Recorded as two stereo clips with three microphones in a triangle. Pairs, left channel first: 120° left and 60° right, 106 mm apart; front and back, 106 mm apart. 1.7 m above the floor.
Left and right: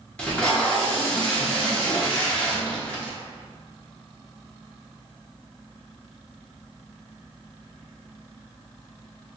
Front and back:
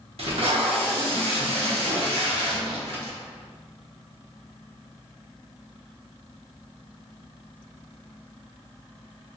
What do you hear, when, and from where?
0.2 s tape being pulled: 160° right, 0.9 m